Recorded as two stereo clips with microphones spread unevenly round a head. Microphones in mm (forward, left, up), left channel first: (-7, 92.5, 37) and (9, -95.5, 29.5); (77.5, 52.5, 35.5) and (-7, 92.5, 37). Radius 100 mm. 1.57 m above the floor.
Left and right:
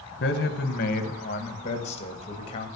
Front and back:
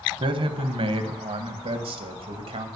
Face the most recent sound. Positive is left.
turn(degrees=160)